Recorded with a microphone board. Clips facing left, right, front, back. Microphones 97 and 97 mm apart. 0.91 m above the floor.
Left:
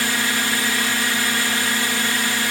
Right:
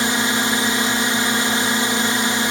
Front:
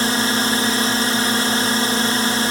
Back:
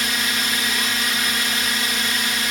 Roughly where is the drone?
Ahead right.